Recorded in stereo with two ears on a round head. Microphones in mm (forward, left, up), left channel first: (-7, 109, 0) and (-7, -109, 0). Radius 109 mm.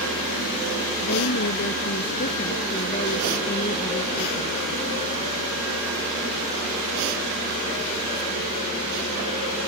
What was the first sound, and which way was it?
A woman speaking, 50° left (ahead or behind).